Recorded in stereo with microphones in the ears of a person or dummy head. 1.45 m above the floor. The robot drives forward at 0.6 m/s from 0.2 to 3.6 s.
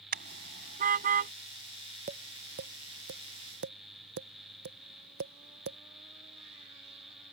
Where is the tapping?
40° right (ahead or behind); by 5.8 s 55° right (ahead or behind).